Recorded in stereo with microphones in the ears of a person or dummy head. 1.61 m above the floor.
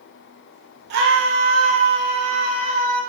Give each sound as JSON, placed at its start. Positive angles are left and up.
{"t": 0.9, "sound": "a scream", "side_deg": -60, "distance_m": 1.2}